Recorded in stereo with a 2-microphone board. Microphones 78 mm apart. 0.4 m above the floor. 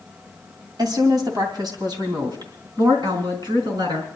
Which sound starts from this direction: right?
A woman speaking, at 0.8 s.